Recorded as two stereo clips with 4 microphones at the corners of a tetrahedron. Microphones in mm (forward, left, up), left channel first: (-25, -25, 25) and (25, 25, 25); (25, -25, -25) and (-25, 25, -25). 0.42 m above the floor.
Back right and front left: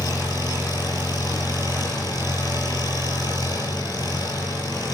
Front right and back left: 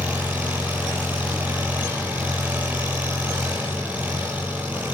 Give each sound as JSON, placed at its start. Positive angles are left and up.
{"t": 0.0, "sound": "an engine running", "azimuth_deg": -155, "distance_m": 9.0}